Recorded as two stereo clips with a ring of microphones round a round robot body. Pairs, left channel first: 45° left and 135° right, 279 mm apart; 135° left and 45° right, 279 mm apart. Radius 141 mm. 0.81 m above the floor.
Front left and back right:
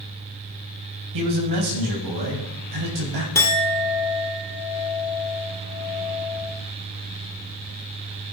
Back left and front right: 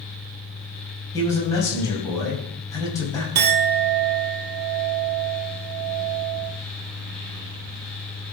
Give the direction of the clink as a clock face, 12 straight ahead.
1 o'clock.